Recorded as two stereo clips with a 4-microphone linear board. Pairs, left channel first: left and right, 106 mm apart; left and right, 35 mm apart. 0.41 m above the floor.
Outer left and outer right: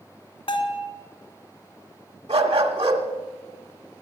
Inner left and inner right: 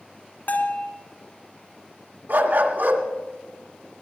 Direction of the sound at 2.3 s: 75° right (ahead or behind).